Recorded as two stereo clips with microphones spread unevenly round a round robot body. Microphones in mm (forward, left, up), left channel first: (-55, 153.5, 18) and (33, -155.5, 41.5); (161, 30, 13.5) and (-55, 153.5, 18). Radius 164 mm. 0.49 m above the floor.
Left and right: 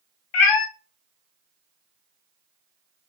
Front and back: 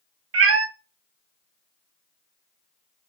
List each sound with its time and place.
0.3 s a cat meowing: 115° left, 0.6 m